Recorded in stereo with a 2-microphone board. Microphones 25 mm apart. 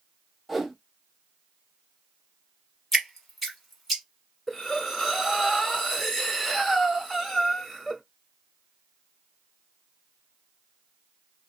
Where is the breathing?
Centre (ahead or behind), 1.1 m.